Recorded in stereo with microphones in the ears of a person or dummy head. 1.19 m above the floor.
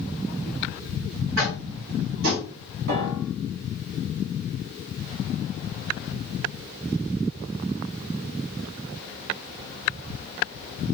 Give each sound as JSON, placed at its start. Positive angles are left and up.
{"t": 1.4, "sound": "tapping", "side_deg": -80, "distance_m": 1.3}
{"t": 2.9, "sound": "a piano", "side_deg": -70, "distance_m": 0.9}